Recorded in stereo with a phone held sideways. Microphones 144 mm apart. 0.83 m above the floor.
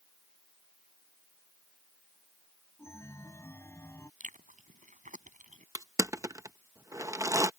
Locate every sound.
2.8 s a chime: 20° left (ahead or behind)
4.2 s chewing: 60° right (ahead or behind)
5.8 s crushing: 20° right (ahead or behind)